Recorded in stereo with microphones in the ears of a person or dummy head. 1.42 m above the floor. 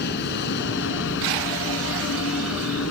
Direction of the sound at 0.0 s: 60° left (ahead or behind).